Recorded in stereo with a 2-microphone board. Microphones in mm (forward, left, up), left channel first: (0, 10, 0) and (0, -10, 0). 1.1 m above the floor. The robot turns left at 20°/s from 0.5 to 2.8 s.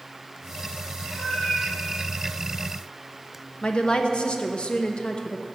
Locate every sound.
1.1 s a cat meowing: 65° left (ahead or behind), 2.5 m; by 1.7 s 50° left (ahead or behind), 2.5 m
3.6 s a woman speaking: 50° left (ahead or behind), 0.9 m